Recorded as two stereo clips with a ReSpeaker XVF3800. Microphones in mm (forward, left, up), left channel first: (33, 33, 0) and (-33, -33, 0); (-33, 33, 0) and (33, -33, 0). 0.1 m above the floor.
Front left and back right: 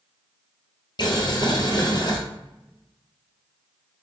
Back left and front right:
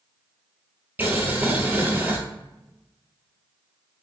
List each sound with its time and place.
1.0 s boiling: 20° left, 1.2 m